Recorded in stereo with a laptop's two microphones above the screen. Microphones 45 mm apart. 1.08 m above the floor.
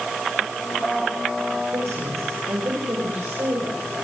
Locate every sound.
1.7 s a woman speaking: 80° right, 5.5 m; by 3.9 s 65° right (ahead or behind), 6 m